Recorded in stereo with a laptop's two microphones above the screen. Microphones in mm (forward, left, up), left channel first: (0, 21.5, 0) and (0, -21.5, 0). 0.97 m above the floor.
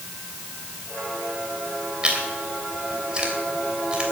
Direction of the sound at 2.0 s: 20° right (ahead or behind).